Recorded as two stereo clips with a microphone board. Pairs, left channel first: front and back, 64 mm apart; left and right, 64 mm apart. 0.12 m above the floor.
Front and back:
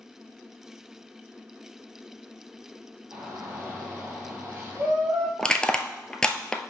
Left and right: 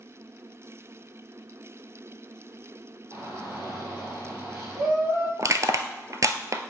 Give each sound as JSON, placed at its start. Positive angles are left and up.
{"t": 3.1, "sound": "a shout", "azimuth_deg": -125, "distance_m": 2.5}
{"t": 5.4, "sound": "crushing", "azimuth_deg": -75, "distance_m": 0.6}